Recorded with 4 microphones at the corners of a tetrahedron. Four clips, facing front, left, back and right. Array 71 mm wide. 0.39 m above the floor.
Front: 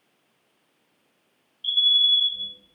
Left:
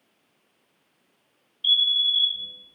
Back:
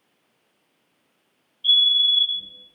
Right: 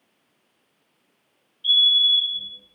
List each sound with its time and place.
1.6 s a fire alarm: 15° right, 2.0 m